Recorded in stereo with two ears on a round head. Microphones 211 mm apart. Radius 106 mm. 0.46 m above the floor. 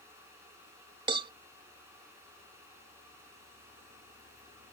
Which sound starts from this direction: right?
A cowbell, at 1.1 s.